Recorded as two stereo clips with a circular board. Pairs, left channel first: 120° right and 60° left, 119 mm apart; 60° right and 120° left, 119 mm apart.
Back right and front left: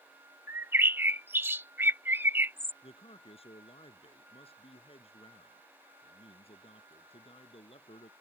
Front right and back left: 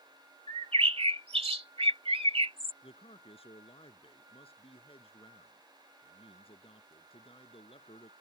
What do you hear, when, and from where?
0.5 s a bird: 130° left
2.8 s a man speaking: 90° right